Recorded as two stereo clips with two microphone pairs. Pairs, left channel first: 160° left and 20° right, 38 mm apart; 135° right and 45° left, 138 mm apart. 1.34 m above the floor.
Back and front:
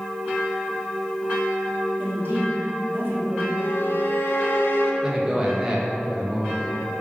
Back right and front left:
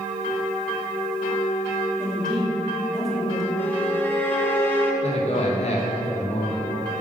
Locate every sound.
2.0 s a man speaking: 45° right, 1.9 m
3.6 s a violin: 155° left, 0.7 m
5.0 s a man speaking: 95° right, 1.2 m